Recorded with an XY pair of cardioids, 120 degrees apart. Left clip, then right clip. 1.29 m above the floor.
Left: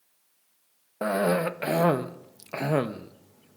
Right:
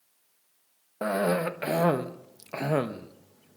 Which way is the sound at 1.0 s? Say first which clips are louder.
Left 2 dB; 10° left.